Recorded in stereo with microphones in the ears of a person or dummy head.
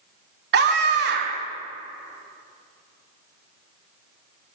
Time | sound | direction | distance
0.5 | a scream | 55° right (ahead or behind) | 1.3 m